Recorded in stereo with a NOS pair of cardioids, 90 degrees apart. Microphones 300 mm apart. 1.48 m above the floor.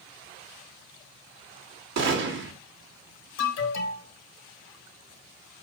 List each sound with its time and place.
2.0 s a gunshot: 65° right, 2.5 m
3.4 s an alarm: 60° left, 2.5 m